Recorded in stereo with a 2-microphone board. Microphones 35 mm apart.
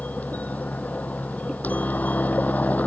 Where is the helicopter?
50° left (ahead or behind).